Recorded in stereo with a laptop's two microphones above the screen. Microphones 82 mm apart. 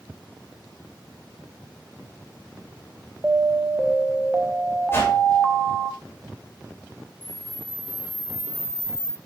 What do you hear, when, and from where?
3.2 s an alarm: 15° right (ahead or behind), 1.1 m
4.9 s a whoosh: 30° left (ahead or behind), 1.9 m
7.2 s a camera shutter: 45° left (ahead or behind), 0.7 m